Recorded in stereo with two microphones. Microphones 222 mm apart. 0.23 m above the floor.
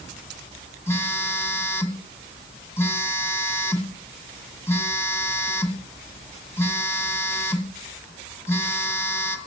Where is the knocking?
No knocking in this recording.